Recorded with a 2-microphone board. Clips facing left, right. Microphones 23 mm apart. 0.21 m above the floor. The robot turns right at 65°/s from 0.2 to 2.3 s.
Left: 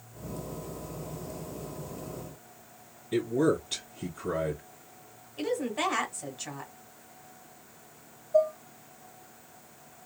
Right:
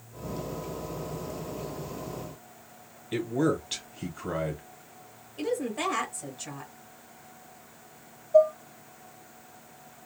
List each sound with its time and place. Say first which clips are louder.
3.1 s a man speaking: left 1 dB; 30° right (ahead or behind), 1.6 m
5.4 s a woman speaking: even; 15° left (ahead or behind), 1.2 m
8.3 s dishes clattering: right 5 dB; 15° right (ahead or behind), 0.8 m